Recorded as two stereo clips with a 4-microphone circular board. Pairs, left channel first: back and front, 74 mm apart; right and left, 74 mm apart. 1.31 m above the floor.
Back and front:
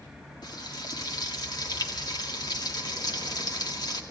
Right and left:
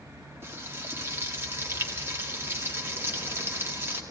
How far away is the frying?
About 1.9 m.